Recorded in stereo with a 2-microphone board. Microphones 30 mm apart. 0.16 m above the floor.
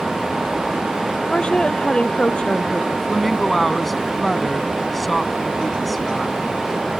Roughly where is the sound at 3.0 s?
Centre.